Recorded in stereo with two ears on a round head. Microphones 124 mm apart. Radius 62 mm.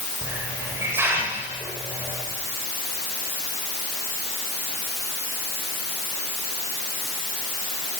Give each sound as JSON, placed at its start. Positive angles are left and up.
{"t": 0.2, "sound": "a hiss", "side_deg": -15, "distance_m": 8.5}